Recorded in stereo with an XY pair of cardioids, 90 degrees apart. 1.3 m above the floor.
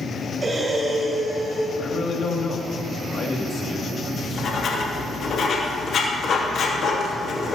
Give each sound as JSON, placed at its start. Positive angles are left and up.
{"t": 0.4, "sound": "breathing", "azimuth_deg": -35, "distance_m": 5.0}
{"t": 1.8, "sound": "a man speaking", "azimuth_deg": 55, "distance_m": 2.5}
{"t": 4.1, "sound": "writing", "azimuth_deg": 65, "distance_m": 2.5}